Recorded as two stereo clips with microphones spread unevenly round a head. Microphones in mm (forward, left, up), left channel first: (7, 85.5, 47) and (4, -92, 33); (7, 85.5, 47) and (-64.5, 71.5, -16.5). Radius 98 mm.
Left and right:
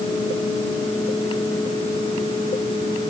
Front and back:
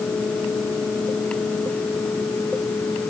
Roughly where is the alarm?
I don't hear an alarm.